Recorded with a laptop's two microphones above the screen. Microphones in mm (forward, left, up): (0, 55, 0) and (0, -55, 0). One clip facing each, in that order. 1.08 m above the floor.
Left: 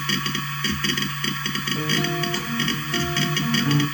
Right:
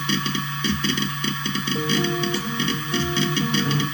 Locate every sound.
0.0 s a machine running: 20° right (ahead or behind), 0.7 m
1.8 s a guitar: 80° right, 2.5 m